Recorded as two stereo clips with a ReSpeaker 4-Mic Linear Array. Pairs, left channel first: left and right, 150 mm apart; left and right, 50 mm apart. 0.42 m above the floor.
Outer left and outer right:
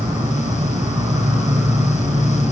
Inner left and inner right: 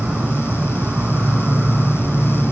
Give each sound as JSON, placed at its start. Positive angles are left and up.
{"t": 0.0, "sound": "an insect", "side_deg": -25, "distance_m": 1.2}